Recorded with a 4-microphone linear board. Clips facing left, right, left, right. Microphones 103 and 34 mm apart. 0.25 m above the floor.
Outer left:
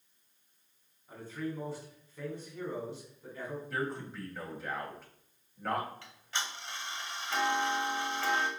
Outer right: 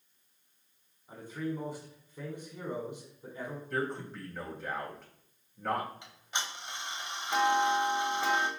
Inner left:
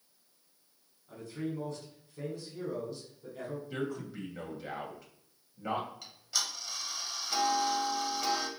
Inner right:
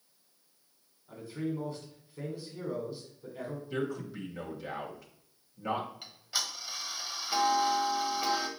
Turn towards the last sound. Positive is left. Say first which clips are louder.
# outer right 1 dB, even
turn(degrees=-20)  # may be behind; listen again after turning